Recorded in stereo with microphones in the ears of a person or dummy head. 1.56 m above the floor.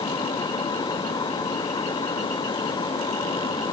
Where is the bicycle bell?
No bicycle bell in this recording.